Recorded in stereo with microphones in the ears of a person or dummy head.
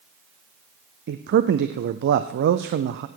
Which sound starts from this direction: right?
A man speaking, at 1.1 s.